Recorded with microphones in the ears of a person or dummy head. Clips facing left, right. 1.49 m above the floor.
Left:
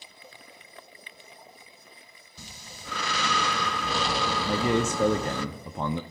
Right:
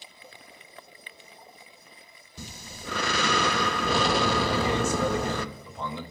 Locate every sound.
2.4 s breathing: 50° right (ahead or behind), 0.5 m
4.5 s a man speaking: 45° left (ahead or behind), 0.6 m